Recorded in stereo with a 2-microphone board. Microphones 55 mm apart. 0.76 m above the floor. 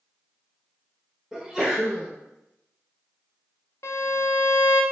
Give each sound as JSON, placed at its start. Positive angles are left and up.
{"t": 1.3, "sound": "a sneeze", "side_deg": -15, "distance_m": 0.5}
{"t": 3.8, "sound": "a violin", "side_deg": 75, "distance_m": 0.5}